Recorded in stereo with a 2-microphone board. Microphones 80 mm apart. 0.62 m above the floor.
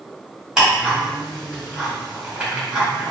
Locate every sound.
0.6 s ticking: 5° right (ahead or behind), 1.7 m